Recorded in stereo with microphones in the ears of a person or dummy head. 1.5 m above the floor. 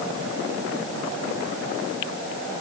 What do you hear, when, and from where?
Only background noise.